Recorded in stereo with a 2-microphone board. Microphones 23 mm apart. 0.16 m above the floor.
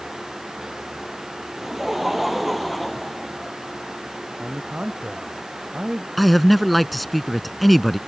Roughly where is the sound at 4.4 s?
Right.